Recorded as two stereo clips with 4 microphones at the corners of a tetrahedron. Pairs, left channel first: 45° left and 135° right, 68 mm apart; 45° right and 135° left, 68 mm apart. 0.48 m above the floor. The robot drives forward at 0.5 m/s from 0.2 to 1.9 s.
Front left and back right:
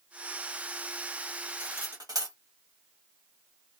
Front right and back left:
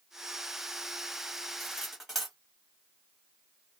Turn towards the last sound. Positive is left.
turn(degrees=-140)